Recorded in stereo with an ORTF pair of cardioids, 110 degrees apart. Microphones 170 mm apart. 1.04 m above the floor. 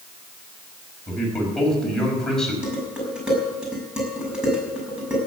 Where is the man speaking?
5° left, 5.5 m.